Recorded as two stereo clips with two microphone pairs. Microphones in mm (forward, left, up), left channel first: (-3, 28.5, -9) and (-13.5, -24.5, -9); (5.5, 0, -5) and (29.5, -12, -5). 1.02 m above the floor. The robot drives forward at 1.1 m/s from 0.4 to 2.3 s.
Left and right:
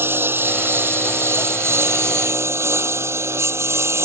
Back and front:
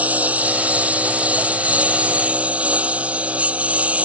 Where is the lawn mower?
55° right; by 4.1 s 65° right.